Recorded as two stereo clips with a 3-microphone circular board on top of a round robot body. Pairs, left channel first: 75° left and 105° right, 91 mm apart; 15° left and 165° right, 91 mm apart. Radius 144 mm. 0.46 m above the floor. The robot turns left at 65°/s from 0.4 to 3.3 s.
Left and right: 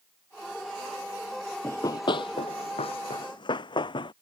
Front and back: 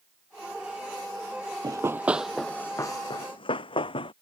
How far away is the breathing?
I don't hear breathing.